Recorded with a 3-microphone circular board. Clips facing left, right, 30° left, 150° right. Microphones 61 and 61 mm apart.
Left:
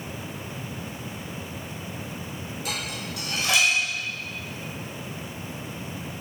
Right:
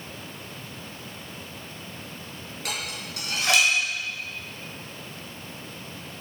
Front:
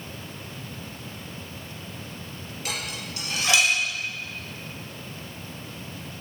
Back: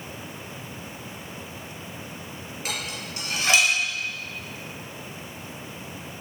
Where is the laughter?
I don't hear laughter.